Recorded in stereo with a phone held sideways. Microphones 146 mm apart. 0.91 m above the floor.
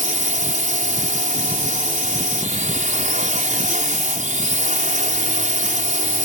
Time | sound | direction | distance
0.0 | a drone | 60° right (ahead or behind) | ?